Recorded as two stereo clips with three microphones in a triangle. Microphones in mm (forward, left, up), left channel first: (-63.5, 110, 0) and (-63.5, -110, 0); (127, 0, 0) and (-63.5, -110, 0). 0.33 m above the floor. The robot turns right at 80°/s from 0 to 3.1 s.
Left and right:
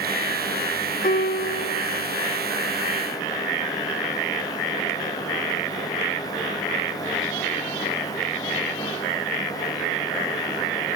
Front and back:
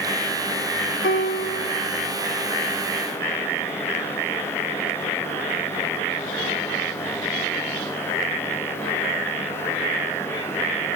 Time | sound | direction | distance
1.0 | a piano | 45° left | 0.5 m